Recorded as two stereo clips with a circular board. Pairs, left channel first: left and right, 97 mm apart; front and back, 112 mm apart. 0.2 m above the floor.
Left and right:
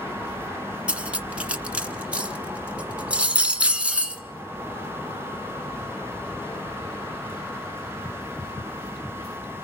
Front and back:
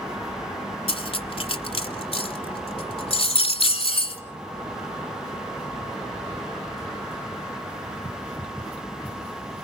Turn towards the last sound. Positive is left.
turn(degrees=-15)